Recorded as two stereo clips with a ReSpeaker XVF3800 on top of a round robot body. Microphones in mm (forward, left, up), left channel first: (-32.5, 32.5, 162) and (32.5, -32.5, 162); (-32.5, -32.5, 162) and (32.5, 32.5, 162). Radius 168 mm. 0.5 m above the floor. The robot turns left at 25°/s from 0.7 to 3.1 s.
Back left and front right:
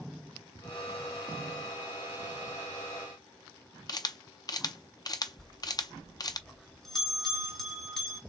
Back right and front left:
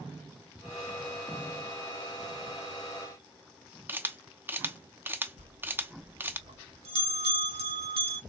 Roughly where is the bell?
Ahead left.